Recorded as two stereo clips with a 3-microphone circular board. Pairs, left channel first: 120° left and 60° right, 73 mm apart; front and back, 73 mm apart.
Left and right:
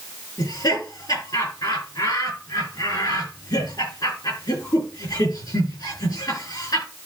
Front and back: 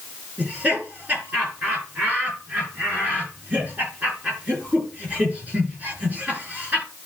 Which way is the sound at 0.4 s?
115° left.